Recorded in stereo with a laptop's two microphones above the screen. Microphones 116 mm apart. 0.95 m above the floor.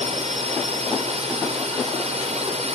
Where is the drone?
70° right (ahead or behind).